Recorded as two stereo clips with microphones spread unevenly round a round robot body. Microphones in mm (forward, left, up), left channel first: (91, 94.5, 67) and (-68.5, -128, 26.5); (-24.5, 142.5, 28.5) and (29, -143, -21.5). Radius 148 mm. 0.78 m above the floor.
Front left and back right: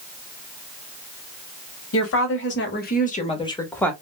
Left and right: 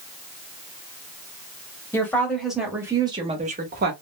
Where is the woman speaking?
15° left, 1.4 m; by 3.9 s 35° right, 1.0 m.